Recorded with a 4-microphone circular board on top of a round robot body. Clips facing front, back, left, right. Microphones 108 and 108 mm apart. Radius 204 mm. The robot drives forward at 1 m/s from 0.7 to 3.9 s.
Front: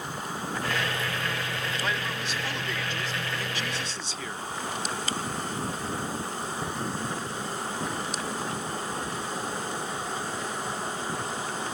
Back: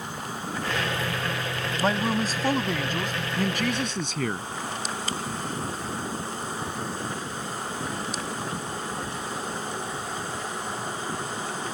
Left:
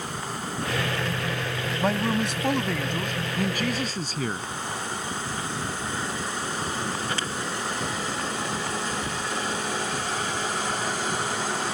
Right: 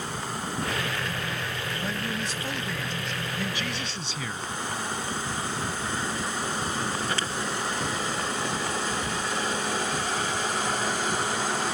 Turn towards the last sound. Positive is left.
turn(degrees=140)